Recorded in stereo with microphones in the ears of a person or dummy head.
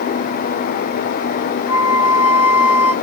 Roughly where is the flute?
Left.